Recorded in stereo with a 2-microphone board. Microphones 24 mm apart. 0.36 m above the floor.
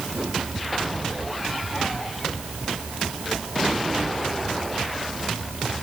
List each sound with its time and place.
Only background noise.